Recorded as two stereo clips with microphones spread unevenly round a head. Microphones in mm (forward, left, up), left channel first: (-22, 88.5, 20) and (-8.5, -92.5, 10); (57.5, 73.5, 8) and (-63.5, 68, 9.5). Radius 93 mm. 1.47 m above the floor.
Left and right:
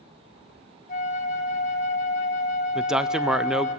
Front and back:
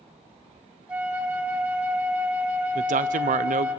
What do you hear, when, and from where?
0.9 s a flute: 110° left, 1.2 m
2.8 s a man speaking: 170° right, 0.6 m